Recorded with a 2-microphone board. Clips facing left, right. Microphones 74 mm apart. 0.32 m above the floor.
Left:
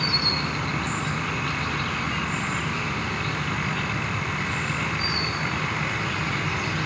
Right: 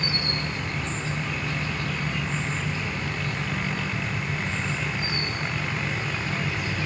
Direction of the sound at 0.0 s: 75° left (ahead or behind).